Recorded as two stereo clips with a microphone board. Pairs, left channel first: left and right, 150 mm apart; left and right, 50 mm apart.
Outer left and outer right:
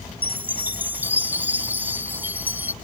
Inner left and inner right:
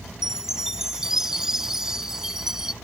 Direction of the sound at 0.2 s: 10° right (ahead or behind).